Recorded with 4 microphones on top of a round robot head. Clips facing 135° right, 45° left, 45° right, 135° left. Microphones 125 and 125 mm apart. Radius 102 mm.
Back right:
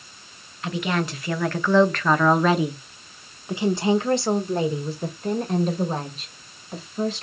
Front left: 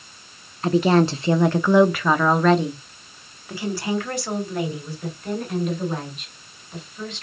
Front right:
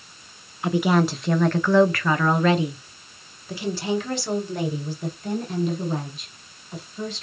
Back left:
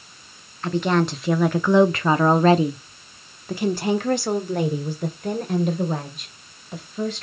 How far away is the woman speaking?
About 1.0 m.